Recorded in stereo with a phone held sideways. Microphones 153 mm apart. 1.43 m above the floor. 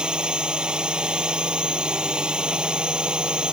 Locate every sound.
0.0 s a drone: 5° right (ahead or behind)